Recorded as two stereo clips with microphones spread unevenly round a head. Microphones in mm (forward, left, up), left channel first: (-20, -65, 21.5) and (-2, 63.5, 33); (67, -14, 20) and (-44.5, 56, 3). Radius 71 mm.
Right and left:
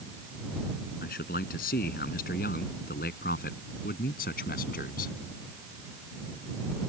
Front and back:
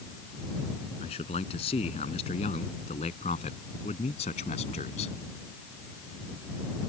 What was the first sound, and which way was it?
A man speaking, 80° right.